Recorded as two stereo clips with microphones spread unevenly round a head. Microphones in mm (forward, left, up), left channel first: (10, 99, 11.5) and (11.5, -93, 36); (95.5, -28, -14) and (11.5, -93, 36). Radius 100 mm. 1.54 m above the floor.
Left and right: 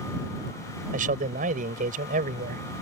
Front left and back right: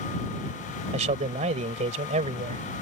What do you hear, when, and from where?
0.9 s a man speaking: 140° right